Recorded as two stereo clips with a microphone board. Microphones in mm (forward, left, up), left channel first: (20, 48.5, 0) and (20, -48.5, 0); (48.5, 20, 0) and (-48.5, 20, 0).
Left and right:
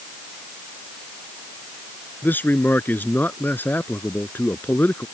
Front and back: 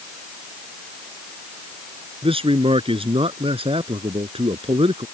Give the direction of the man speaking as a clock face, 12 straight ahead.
7 o'clock.